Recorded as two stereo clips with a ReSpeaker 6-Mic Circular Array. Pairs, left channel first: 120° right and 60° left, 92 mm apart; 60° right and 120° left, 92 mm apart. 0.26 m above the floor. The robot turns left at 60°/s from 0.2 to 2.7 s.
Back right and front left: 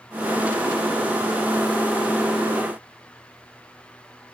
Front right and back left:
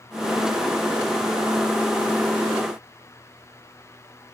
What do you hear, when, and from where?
Only background noise.